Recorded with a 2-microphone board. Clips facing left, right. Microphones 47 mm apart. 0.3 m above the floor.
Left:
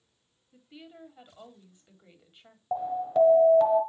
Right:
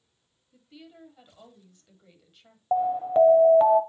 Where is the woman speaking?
20° left (ahead or behind), 1.7 m.